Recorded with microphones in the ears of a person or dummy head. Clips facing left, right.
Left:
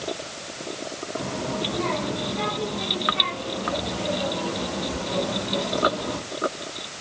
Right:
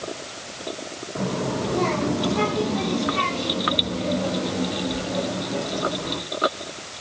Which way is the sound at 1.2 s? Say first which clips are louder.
Right 4 dB; 55° right (ahead or behind).